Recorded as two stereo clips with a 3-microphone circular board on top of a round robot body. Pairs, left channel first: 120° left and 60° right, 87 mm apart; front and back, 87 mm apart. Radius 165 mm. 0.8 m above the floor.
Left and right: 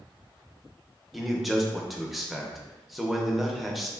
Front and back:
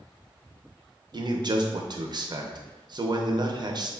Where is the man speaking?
150° right, 0.6 m.